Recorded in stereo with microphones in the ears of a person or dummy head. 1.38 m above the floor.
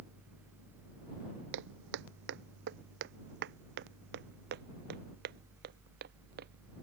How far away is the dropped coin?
I don't hear a dropped coin.